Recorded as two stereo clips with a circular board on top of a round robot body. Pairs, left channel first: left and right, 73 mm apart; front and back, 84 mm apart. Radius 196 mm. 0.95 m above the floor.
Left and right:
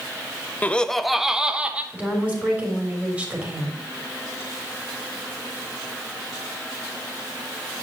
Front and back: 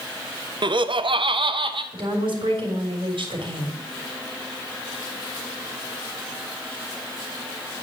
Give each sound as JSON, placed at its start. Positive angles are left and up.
{"t": 0.6, "sound": "laughter", "azimuth_deg": 155, "distance_m": 0.7}
{"t": 1.9, "sound": "a woman speaking", "azimuth_deg": -160, "distance_m": 3.5}